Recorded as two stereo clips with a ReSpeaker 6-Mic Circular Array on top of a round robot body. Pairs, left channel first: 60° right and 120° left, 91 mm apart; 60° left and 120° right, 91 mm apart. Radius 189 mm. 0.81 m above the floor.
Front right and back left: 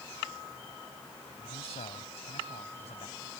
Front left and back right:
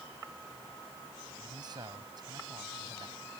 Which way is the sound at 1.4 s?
75° right.